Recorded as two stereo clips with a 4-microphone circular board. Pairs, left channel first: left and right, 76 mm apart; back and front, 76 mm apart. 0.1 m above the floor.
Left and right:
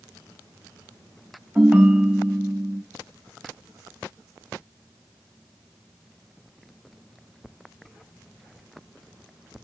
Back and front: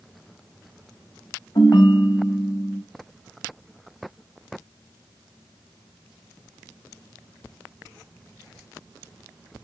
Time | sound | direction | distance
1.6 | a ringtone | 165° right | 3.5 m